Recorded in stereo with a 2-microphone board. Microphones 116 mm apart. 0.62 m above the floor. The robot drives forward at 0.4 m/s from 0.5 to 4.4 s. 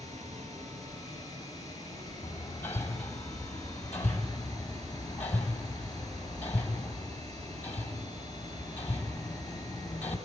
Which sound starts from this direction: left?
Hammering, at 2.2 s.